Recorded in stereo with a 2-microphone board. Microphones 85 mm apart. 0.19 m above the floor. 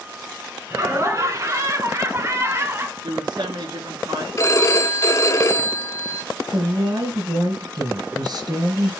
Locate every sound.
0.7 s laughter: 40° right (ahead or behind), 2 m; by 2.9 s 30° right (ahead or behind), 1.4 m
3.0 s a woman speaking: 60° right (ahead or behind), 2.5 m
4.4 s a phone ringing: 40° left (ahead or behind), 1.1 m
6.5 s a woman speaking: 55° right (ahead or behind), 3 m